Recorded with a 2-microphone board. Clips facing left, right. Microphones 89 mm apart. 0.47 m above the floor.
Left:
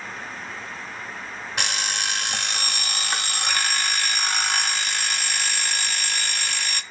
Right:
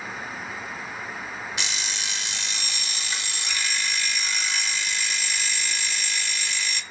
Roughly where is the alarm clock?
Left.